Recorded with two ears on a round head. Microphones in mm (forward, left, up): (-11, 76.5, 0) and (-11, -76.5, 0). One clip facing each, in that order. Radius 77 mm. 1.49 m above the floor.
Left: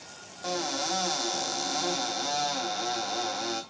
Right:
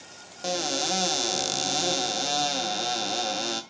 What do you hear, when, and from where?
0.4 s a cupboard door: 35° right (ahead or behind), 1.0 m